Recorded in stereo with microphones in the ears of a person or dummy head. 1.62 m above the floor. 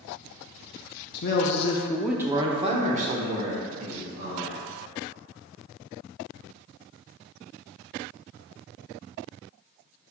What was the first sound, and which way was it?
A man speaking, 65° left (ahead or behind).